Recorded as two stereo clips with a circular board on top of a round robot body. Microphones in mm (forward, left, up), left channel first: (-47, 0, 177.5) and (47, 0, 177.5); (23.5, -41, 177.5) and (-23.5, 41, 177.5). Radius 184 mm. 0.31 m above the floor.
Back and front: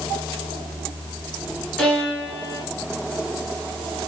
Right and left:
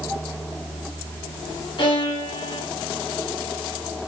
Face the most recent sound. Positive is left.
turn(degrees=-100)